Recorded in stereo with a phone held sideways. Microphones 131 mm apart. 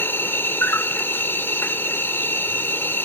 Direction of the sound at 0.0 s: 15° left (ahead or behind).